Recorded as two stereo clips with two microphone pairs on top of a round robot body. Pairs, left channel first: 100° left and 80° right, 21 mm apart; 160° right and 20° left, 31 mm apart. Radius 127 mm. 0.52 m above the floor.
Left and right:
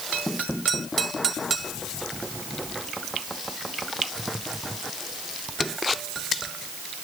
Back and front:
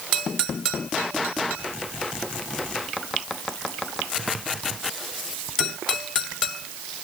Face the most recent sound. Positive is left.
No sound to turn to.